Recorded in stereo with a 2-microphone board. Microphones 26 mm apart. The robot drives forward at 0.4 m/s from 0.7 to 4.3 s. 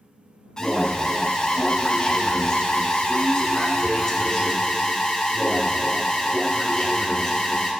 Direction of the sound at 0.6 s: 25° left (ahead or behind).